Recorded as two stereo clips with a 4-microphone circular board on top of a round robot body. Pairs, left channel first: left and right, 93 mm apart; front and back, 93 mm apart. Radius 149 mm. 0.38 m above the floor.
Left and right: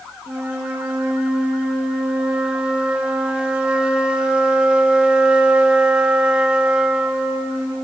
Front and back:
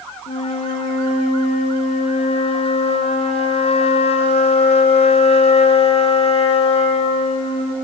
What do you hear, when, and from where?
0.3 s a flute: 10° right, 0.6 m